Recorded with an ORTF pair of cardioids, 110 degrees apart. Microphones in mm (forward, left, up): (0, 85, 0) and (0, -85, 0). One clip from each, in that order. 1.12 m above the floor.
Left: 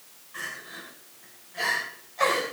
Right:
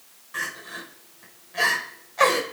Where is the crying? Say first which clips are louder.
Right 5 dB; 50° right, 4 m.